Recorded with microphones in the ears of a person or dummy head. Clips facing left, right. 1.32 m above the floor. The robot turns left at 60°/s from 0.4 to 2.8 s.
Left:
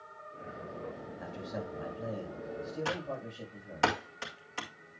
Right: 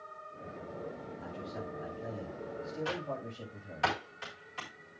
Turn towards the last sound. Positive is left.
turn(degrees=55)  # may be behind; listen again after turning